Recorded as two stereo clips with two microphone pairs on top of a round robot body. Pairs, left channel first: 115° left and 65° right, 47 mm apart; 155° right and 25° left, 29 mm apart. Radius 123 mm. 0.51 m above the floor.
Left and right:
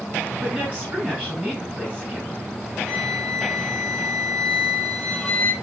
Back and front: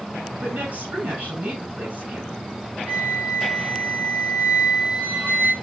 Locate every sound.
0.4 s a woman speaking: straight ahead, 8 m
2.9 s a flute: 30° left, 4 m